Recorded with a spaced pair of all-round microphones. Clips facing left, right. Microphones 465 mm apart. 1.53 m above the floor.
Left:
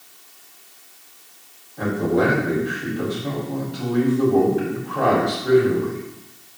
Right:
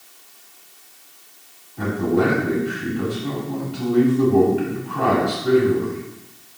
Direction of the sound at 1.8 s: 15° right (ahead or behind).